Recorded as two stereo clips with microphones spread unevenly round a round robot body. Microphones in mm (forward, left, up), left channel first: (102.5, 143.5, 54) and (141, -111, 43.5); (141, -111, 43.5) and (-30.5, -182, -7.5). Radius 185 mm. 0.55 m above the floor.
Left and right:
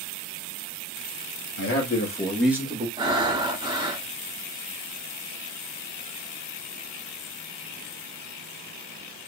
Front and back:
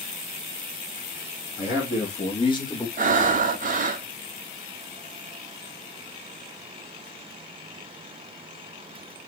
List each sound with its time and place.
1.6 s a man speaking: 90° left, 1.8 m; by 2.9 s 60° right, 1.4 m
3.0 s breathing: 150° right, 0.6 m